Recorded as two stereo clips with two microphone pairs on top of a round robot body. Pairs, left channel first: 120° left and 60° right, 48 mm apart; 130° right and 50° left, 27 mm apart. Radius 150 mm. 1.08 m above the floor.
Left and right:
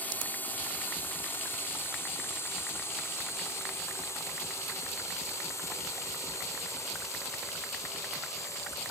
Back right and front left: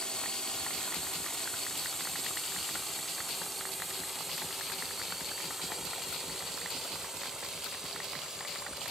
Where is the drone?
175° left; by 8.9 s 115° left.